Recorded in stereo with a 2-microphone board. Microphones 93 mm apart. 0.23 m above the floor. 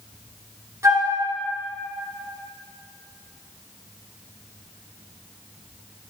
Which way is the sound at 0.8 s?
30° right (ahead or behind).